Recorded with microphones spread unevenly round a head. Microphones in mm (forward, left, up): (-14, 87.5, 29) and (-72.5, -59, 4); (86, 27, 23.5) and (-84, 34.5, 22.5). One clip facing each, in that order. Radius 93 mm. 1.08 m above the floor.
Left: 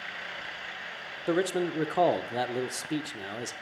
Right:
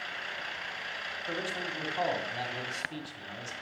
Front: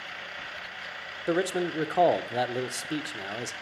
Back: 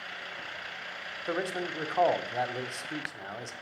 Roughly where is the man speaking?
Ahead left.